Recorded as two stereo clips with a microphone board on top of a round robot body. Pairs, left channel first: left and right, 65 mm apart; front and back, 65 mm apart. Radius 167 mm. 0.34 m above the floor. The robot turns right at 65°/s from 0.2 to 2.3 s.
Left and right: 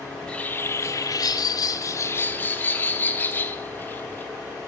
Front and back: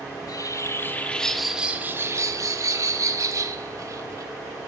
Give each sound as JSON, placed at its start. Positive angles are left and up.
{"t": 0.1, "sound": "a bird", "azimuth_deg": 10, "distance_m": 2.5}